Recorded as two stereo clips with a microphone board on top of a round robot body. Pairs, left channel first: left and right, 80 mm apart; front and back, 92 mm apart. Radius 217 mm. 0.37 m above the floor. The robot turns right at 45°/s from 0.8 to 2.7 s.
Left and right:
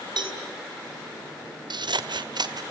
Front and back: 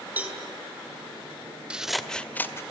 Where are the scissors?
105° right, 1.6 m; by 2.6 s 60° right, 1.6 m.